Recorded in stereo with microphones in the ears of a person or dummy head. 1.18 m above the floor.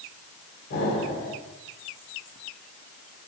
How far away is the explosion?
About 3 m.